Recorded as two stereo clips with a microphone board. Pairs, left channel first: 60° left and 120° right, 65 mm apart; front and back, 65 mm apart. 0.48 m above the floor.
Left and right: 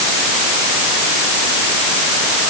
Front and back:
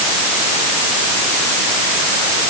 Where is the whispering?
No whispering in this recording.